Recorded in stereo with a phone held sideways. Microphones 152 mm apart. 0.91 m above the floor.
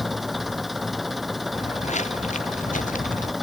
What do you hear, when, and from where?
0.0 s an engine running: centre (ahead or behind)
1.5 s footsteps: 50° left (ahead or behind); by 3.3 s 60° left (ahead or behind)